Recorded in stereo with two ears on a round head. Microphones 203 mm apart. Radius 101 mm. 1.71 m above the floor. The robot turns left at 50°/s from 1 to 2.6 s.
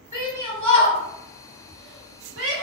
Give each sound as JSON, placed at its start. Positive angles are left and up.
{"t": 0.1, "sound": "a shout", "side_deg": 10, "distance_m": 0.9}